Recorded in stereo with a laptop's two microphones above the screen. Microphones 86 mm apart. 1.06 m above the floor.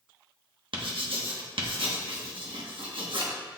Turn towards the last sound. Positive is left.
turn(degrees=-80)